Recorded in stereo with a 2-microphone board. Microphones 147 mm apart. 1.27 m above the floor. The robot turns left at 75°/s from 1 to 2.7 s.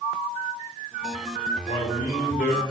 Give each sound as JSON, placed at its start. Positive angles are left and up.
{"t": 1.6, "sound": "a man speaking", "azimuth_deg": 145, "distance_m": 3.0}